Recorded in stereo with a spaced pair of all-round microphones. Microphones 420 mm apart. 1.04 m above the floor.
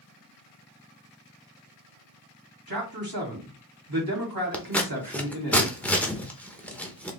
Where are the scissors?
5° left (ahead or behind), 0.8 m.